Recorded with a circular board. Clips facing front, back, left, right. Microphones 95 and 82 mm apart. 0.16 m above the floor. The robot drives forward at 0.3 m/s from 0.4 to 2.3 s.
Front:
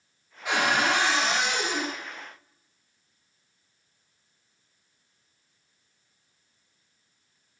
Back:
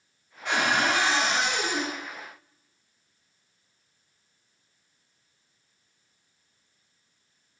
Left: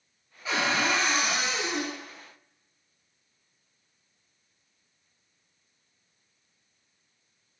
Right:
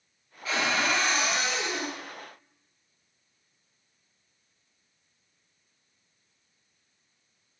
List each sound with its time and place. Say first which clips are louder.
0.5 s a cupboard door: even, left 1 dB; 60° left, 1.2 m; by 1.9 s 125° left, 1.2 m